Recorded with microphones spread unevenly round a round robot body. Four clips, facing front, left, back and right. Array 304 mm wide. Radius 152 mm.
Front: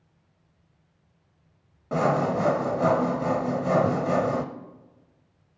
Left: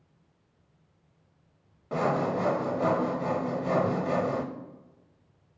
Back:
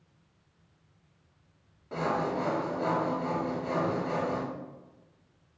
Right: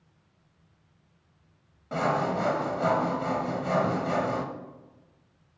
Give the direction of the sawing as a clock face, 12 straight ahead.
12 o'clock.